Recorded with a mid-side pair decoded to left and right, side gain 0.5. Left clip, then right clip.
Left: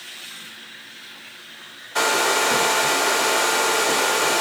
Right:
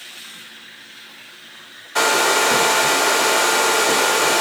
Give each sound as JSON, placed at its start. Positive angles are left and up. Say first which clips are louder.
{"t": 1.9, "sound": "a hair dryer", "louder": "right 3 dB", "azimuth_deg": -20, "distance_m": 0.9}